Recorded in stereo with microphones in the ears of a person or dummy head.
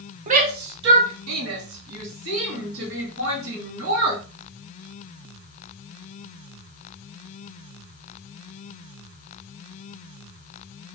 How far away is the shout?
About 0.9 m.